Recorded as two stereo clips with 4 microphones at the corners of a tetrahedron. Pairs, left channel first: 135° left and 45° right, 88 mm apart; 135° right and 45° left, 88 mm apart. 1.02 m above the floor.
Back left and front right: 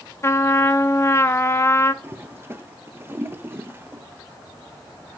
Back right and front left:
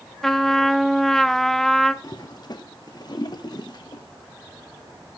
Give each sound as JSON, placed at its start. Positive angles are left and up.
{"t": 0.2, "sound": "a trumpet", "azimuth_deg": 145, "distance_m": 0.5}
{"t": 2.0, "sound": "a toilet flushing", "azimuth_deg": -105, "distance_m": 0.7}